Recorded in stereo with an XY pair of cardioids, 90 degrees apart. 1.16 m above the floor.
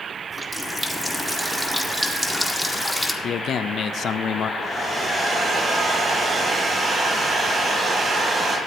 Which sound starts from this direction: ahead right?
A hair dryer, at 4.6 s.